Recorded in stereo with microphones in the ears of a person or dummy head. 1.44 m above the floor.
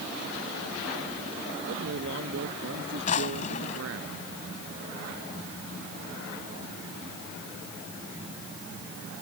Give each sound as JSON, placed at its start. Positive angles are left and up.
{"t": 1.7, "sound": "a man speaking", "side_deg": -70}
{"t": 3.1, "sound": "a drawer", "side_deg": 40}